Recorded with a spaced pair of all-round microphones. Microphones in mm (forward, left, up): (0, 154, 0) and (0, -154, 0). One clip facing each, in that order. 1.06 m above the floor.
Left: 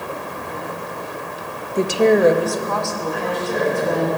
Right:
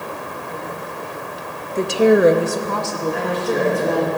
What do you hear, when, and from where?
1.8 s a woman speaking: 15° left (ahead or behind), 0.7 m; by 4.1 s 60° right (ahead or behind), 2.5 m
3.1 s a woman speaking: 80° right, 5.5 m